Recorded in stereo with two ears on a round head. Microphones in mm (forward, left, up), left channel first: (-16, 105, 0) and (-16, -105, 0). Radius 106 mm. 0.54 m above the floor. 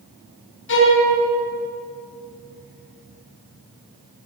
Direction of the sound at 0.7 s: 55° left (ahead or behind).